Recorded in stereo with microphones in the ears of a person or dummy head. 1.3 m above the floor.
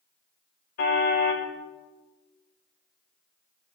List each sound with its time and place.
0.8 s a car horn: 45° left (ahead or behind), 3 m